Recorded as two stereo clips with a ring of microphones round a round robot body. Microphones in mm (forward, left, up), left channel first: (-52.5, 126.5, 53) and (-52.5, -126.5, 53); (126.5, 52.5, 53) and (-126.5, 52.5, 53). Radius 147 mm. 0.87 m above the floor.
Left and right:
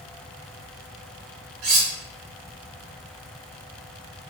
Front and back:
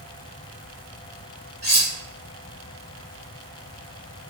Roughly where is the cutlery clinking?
Behind right.